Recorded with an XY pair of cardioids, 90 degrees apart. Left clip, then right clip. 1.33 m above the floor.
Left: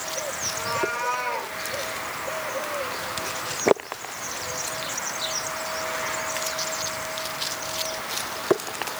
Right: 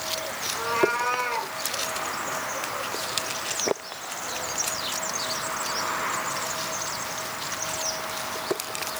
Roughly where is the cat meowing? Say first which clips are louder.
Right 4 dB; ahead.